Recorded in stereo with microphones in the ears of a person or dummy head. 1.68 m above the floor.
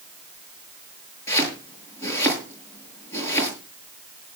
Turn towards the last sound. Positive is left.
turn(degrees=20)  # may be behind; listen again after turning